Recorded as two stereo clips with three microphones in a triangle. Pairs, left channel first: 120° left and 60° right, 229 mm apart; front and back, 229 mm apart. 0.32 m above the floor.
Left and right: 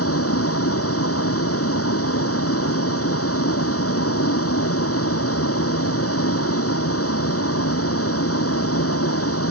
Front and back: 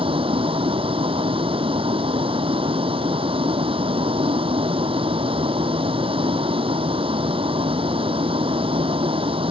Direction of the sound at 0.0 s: 115° left.